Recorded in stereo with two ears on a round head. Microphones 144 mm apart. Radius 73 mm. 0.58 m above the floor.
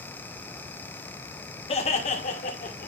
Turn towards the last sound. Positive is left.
turn(degrees=60)  # may be behind; listen again after turning